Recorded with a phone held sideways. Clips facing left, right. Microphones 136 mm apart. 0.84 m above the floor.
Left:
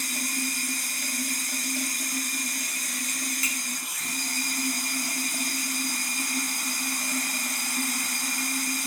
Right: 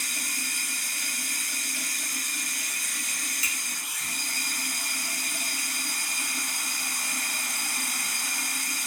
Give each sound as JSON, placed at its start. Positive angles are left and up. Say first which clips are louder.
{"t": 0.0, "sound": "running water", "louder": "left 7 dB", "side_deg": 40, "distance_m": 1.0}
{"t": 3.4, "sound": "a finger snap", "louder": "left 4 dB", "side_deg": 50, "distance_m": 0.9}